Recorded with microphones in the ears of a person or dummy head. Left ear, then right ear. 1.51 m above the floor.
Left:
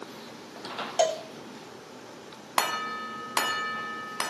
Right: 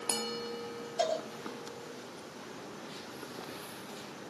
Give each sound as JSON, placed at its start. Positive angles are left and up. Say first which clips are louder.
{"t": 1.0, "sound": "a cowbell", "louder": "left 6 dB", "side_deg": 40, "distance_m": 3.5}